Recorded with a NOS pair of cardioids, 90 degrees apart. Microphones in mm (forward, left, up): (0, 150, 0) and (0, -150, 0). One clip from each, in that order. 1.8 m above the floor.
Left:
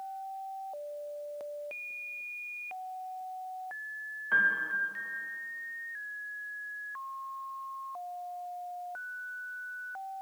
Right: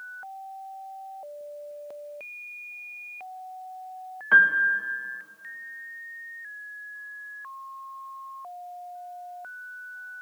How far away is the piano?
About 0.9 m.